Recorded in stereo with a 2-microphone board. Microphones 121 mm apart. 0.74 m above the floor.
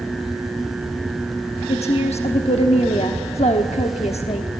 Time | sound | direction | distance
1.7 | a woman speaking | 65° left (ahead or behind) | 1.1 m